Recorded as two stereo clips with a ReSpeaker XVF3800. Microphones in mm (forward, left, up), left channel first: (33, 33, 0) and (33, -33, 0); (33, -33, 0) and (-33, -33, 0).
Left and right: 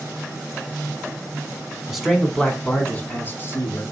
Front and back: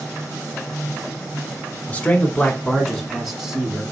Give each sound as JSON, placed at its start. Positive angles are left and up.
{"t": 1.9, "sound": "a man speaking", "azimuth_deg": -15, "distance_m": 1.0}